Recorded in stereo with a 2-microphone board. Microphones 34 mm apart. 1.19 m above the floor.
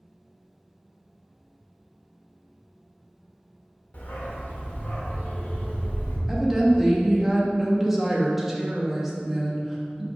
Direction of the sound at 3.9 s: 55° left (ahead or behind).